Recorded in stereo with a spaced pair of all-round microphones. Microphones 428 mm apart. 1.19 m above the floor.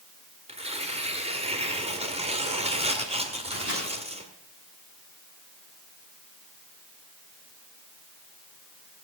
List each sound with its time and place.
0.5 s tearing paper: 15° right (ahead or behind), 1.6 m
3.5 s a microwave: 25° left (ahead or behind), 8.5 m